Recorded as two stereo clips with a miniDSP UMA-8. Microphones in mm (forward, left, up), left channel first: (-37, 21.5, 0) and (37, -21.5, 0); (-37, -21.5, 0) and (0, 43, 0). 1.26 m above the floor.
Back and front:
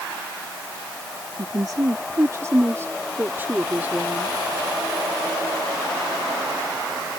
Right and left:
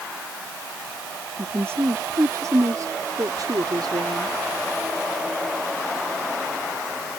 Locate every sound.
1.4 s a woman speaking: 5° left; by 4.4 s 40° left